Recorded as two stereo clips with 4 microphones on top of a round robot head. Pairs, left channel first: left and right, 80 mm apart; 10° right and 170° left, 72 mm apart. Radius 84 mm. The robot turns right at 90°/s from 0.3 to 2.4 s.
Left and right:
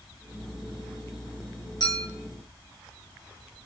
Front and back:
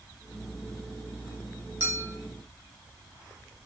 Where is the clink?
125° left, 1.5 m; by 2.1 s 145° left, 1.5 m.